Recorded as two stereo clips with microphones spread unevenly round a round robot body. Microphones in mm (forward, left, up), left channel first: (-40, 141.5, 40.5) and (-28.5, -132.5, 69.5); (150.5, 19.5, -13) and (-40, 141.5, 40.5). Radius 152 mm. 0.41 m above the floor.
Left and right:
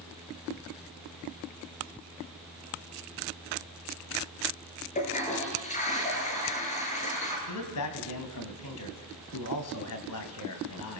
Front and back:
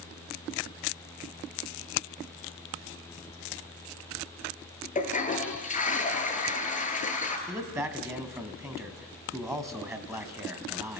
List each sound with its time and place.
5.0 s a toilet flushing: 25° left, 5 m
7.5 s a man speaking: 65° left, 3 m